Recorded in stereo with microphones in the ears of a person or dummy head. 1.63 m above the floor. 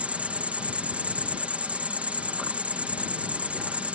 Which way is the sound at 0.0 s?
5° right (ahead or behind).